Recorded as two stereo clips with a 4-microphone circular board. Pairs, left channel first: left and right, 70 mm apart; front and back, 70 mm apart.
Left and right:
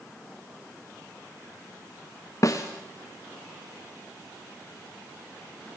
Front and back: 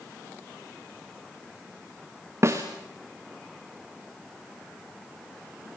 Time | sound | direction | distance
2.4 | a snare drum | 130° left | 3.5 m